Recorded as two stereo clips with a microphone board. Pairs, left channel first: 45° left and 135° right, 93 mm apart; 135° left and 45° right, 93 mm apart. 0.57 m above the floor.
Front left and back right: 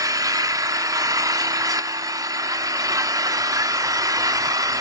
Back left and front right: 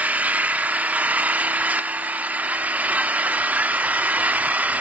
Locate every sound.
0.0 s an engine running: 110° right, 0.7 m